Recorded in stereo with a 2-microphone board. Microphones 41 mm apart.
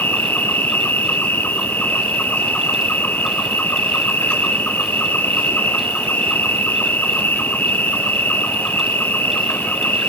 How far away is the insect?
About 1.5 m.